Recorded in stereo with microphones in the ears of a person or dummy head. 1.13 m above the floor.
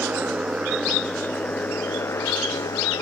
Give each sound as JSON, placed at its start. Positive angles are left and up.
{"t": 0.0, "sound": "a motorcycle", "side_deg": -10}